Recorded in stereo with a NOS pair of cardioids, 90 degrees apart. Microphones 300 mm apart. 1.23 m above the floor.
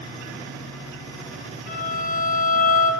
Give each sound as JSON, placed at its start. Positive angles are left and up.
{"t": 1.7, "sound": "a violin", "azimuth_deg": 55, "distance_m": 4.0}